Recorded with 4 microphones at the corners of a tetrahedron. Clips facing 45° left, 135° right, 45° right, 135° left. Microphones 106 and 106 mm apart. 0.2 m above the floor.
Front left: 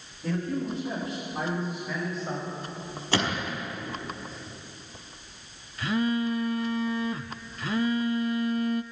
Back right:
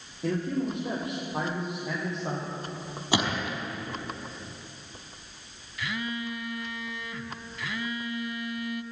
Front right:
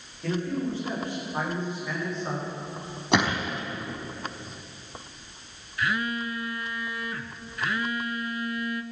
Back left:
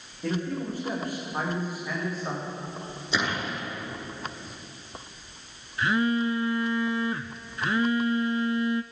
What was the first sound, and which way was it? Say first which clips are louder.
A man speaking: back right 1 dB, front right 1 dB; 150° right.